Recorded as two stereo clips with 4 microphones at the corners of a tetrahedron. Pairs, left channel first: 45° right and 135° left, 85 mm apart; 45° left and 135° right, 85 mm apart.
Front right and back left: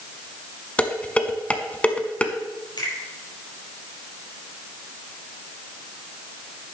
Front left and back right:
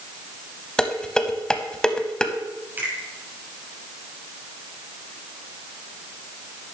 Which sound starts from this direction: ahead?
Dishes clattering, at 0.8 s.